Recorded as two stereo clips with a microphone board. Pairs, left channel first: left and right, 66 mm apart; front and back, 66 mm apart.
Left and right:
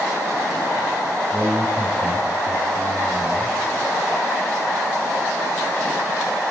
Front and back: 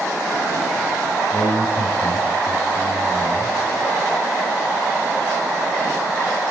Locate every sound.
1.3 s a man speaking: straight ahead, 3 m